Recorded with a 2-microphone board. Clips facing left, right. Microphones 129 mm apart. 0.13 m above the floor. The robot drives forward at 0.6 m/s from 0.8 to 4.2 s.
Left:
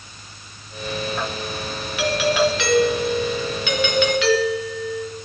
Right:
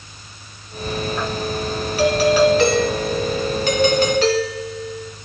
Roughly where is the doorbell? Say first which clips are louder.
Right 5 dB; right.